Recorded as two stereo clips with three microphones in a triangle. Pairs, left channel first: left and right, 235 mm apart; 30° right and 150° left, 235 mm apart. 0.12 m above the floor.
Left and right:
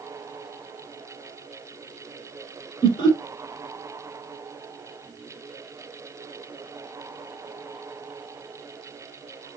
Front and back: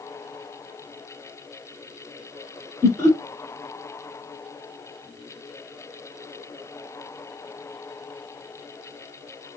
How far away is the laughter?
About 1.3 m.